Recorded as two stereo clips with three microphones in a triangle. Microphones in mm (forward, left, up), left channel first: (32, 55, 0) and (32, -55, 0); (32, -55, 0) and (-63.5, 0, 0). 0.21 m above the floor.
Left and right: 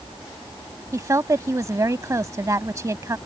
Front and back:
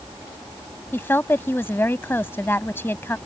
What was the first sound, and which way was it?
A woman speaking, 75° right.